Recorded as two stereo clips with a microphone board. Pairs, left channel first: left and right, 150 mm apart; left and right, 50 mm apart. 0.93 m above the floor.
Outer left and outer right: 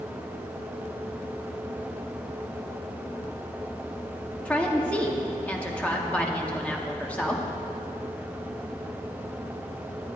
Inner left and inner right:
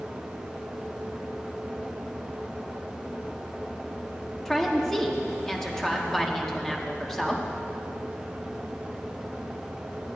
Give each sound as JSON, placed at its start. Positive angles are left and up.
{"t": 4.5, "sound": "a woman speaking", "side_deg": 10, "distance_m": 1.6}